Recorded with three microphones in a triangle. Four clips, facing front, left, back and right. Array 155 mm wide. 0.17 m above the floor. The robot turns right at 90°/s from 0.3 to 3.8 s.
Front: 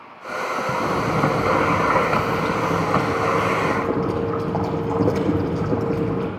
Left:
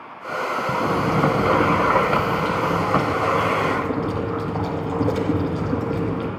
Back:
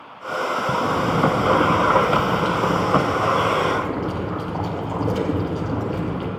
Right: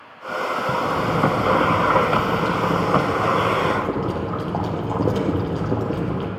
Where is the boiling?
35° left, 2.5 m; by 6.3 s 55° right, 2.5 m.